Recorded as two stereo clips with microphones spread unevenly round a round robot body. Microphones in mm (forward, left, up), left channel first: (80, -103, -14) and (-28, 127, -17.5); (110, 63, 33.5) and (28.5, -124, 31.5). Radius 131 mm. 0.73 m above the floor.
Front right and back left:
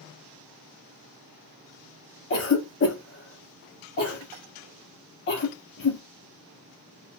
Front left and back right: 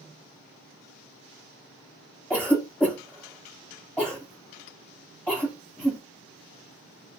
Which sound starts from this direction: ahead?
A cough, at 2.3 s.